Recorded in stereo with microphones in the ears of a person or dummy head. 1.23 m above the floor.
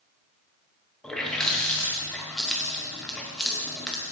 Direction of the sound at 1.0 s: 5° left (ahead or behind).